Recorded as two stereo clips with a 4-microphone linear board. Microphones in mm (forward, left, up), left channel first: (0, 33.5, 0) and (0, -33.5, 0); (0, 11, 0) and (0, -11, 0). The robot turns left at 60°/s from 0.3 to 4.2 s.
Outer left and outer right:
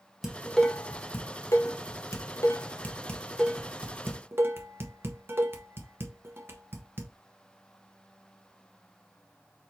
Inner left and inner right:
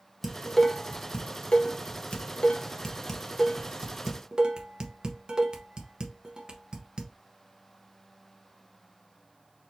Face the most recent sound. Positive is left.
turn(degrees=-35)  # may be behind; listen again after turning